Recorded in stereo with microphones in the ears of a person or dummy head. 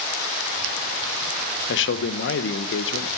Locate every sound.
1.7 s a man speaking: 60° left (ahead or behind), 1.0 m